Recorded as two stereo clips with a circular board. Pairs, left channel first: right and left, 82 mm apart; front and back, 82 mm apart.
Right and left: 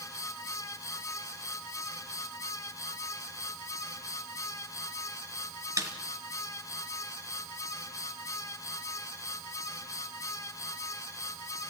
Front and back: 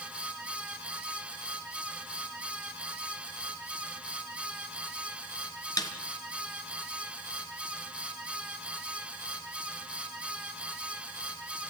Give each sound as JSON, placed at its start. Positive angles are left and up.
{"t": 5.8, "sound": "a snare drum", "azimuth_deg": 40, "distance_m": 2.5}